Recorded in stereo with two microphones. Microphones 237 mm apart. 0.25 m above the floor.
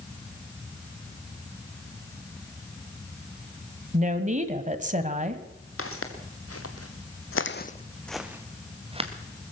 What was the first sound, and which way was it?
A woman speaking, 30° right (ahead or behind).